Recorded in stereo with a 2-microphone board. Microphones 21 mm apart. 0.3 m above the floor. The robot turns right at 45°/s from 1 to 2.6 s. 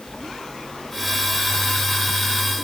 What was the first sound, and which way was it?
Only background noise.